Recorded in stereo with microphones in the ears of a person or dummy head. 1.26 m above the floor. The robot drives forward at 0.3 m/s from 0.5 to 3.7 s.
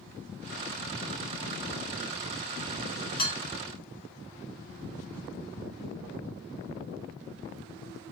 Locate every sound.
3.2 s dishes clattering: 50° left (ahead or behind), 1.6 m